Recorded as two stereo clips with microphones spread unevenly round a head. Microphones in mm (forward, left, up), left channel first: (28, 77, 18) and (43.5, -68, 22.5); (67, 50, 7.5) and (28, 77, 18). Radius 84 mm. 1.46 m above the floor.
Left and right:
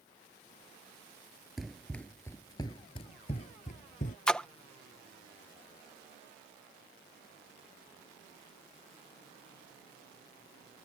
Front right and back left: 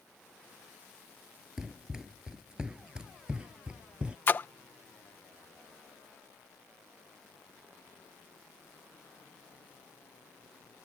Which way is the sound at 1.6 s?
165° right.